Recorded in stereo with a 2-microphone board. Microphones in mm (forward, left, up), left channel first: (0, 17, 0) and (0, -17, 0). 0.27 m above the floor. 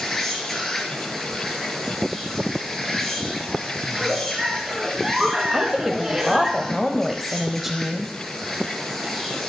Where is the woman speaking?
5° right (ahead or behind), 1.2 m.